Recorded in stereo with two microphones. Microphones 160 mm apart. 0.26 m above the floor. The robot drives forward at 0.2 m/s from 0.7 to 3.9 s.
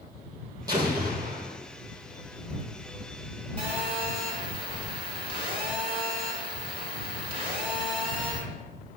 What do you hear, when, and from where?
0.7 s an explosion: 25° right (ahead or behind), 1.6 m; by 1.6 s 20° right (ahead or behind), 1.8 m
3.6 s a phone buzzing: 30° right (ahead or behind), 1.7 m